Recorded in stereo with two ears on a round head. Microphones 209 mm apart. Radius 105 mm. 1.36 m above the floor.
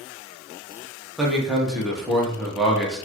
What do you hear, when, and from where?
1.2 s a man speaking: centre (ahead or behind), 0.9 m